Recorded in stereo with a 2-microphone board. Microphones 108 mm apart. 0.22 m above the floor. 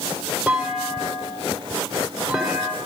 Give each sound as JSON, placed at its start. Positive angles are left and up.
{"t": 0.5, "sound": "a clunk", "side_deg": -10, "distance_m": 4.5}